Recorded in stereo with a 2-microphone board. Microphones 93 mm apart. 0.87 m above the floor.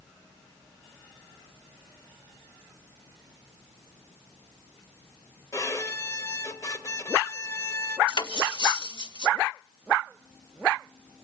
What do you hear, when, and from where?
5.5 s a violin: 35° left (ahead or behind), 1.0 m
8.1 s cutlery clinking: 60° left (ahead or behind), 1.0 m